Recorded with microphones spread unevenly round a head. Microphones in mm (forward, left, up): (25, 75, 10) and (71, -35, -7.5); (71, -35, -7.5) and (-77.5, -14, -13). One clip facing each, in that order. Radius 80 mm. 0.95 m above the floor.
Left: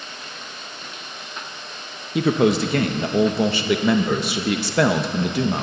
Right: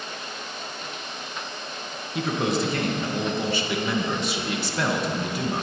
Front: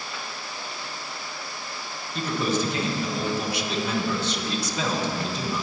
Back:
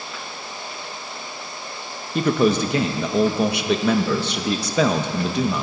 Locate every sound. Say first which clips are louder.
2.1 s a man speaking: left 7 dB, back 8 dB; 150° left, 0.8 m